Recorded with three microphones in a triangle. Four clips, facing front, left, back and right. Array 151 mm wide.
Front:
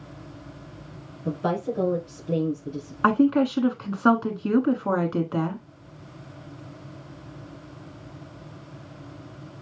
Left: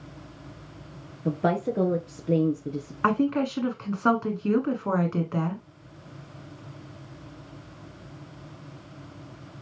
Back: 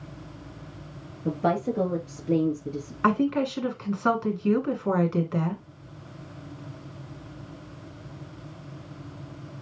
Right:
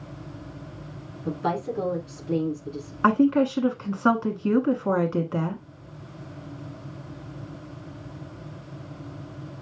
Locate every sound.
1.2 s a woman speaking: 110° left, 1.8 m
3.0 s a woman speaking: 20° right, 1.2 m